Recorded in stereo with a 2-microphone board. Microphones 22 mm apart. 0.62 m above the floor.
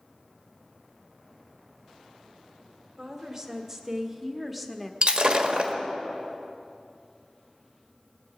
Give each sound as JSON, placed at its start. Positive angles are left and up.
{"t": 3.0, "sound": "a woman speaking", "side_deg": -25, "distance_m": 2.0}
{"t": 5.0, "sound": "breaking glass", "side_deg": -40, "distance_m": 1.5}